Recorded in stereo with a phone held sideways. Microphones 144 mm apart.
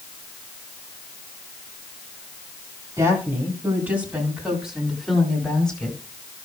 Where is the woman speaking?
25° right (ahead or behind), 4 m; by 6.0 s 10° left (ahead or behind), 4.5 m.